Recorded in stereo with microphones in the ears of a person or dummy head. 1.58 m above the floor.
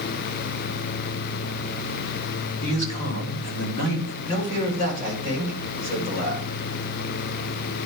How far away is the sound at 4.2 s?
About 5 m.